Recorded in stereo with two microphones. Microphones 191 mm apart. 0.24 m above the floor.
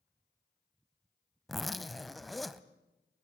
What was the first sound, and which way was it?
A zipper, centre (ahead or behind).